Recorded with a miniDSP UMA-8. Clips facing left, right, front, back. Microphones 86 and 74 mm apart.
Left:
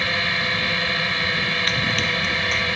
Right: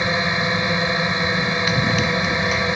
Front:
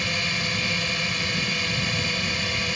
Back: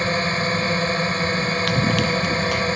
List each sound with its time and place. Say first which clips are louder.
0.0 s a drone: right 4 dB, back 7 dB; 150° right
1.7 s running footsteps: right 4 dB, back 8 dB; 170° right